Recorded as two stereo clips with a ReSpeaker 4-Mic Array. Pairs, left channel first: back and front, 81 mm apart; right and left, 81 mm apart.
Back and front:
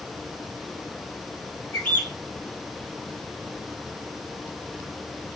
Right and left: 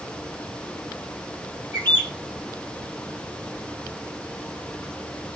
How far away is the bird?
About 2.5 m.